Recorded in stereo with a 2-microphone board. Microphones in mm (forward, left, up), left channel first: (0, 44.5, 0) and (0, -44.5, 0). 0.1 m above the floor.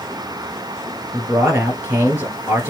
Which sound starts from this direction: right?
A man speaking, at 1.1 s.